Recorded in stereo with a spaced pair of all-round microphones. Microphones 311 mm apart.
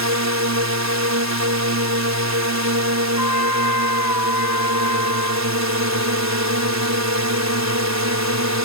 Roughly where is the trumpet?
Left.